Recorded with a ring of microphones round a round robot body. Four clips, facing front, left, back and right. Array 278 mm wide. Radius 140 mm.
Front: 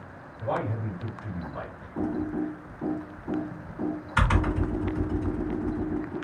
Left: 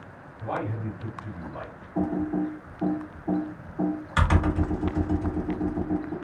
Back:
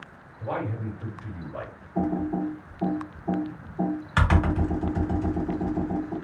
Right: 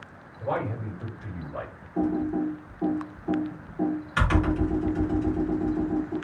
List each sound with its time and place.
0.4 s a man speaking: 110° right, 2.0 m; by 1.9 s 140° right, 2 m
1.9 s typing on a keyboard: 170° left, 1.5 m